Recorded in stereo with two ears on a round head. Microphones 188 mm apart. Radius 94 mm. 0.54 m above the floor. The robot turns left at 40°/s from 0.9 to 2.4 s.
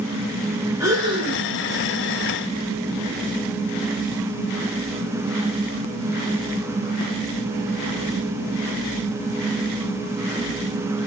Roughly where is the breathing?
Centre.